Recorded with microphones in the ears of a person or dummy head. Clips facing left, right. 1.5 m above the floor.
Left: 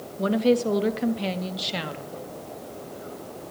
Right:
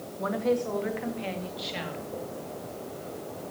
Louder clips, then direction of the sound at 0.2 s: Left 6 dB; 35° left (ahead or behind).